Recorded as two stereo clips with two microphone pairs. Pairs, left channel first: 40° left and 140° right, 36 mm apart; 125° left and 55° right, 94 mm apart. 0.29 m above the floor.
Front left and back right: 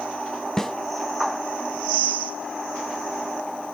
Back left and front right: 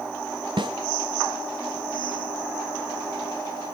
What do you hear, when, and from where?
0.6 s a snare drum: 40° right, 1.5 m